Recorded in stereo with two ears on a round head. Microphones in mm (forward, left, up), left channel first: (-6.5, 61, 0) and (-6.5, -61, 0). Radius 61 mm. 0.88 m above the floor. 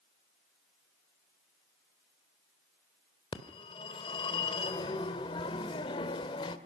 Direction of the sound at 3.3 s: 35° left (ahead or behind).